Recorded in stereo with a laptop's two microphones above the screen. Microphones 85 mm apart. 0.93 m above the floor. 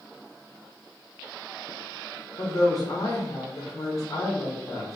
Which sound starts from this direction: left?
A woman speaking, at 2.4 s.